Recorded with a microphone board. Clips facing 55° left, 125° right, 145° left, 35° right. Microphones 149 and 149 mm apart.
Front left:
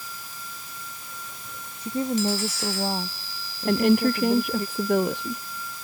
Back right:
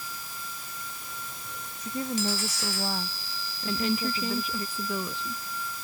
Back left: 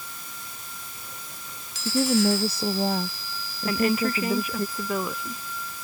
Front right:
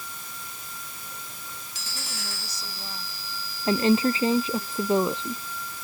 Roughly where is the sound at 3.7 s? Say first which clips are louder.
Front left 9 dB, front right 3 dB; ahead left.